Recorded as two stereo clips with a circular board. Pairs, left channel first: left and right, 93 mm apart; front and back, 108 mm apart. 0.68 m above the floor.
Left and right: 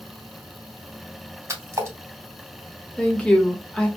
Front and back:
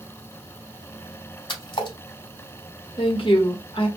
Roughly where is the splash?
Ahead right.